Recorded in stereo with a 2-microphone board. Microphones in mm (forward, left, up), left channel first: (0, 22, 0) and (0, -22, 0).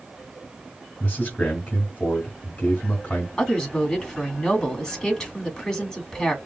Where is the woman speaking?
15° left (ahead or behind), 1.9 m.